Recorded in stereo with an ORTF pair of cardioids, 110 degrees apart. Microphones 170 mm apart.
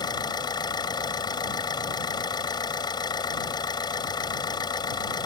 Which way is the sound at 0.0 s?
25° left.